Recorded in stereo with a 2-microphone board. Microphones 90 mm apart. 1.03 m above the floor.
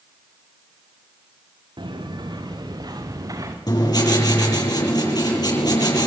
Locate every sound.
1.8 s footsteps: 60° right (ahead or behind), 6 m; by 3.6 s 40° right (ahead or behind), 5.5 m
3.7 s writing: 50° left (ahead or behind), 8.5 m